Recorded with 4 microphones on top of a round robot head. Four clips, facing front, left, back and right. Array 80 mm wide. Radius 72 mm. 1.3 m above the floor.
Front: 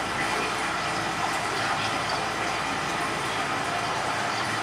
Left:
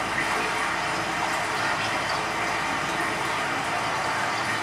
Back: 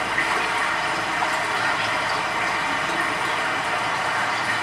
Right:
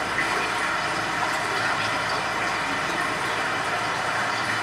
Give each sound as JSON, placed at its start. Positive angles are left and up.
{"t": 0.0, "sound": "running water", "azimuth_deg": 175, "distance_m": 3.5}